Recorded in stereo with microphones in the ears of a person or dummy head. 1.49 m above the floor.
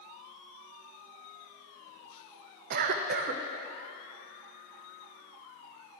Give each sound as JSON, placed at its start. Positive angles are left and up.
{"t": 2.7, "sound": "a cough", "side_deg": -55, "distance_m": 0.7}